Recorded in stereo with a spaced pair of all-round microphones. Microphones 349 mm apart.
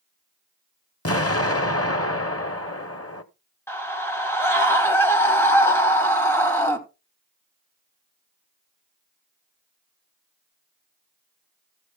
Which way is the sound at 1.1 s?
40° left (ahead or behind).